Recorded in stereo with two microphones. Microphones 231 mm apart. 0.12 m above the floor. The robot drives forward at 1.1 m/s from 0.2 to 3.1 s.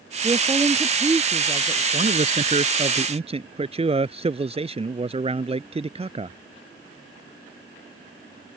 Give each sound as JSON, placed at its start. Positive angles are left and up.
{"t": 0.2, "sound": "a woman speaking", "side_deg": -20}
{"t": 1.9, "sound": "a man speaking", "side_deg": -35}